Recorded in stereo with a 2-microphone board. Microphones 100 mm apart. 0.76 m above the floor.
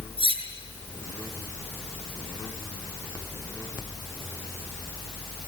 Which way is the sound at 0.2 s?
70° right (ahead or behind).